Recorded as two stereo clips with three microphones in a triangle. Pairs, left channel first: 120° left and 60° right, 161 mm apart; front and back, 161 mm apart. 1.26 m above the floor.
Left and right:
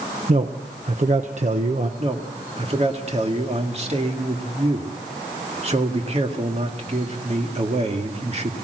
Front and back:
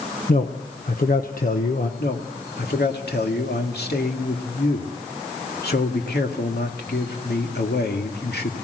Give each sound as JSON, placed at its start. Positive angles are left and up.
{"t": 0.3, "sound": "a man speaking", "azimuth_deg": -20, "distance_m": 1.3}
{"t": 2.0, "sound": "a man speaking", "azimuth_deg": -10, "distance_m": 2.0}